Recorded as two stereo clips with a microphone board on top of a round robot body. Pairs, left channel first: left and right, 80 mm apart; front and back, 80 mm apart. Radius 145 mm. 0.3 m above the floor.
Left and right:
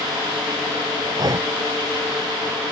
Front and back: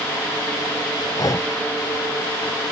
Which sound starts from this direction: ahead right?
Breathing, at 1.2 s.